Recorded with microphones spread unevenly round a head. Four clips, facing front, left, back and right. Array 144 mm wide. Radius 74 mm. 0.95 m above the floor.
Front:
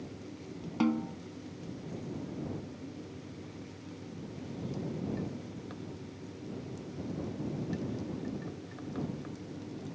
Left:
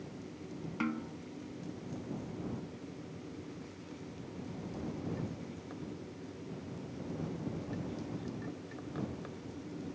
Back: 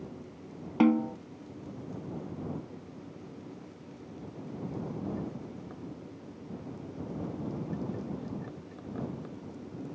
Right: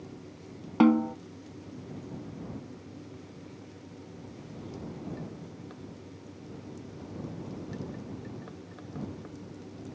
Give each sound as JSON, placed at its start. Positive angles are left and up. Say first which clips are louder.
{"t": 0.8, "sound": "a snare drum", "louder": "right 16 dB, back 6 dB", "azimuth_deg": -125}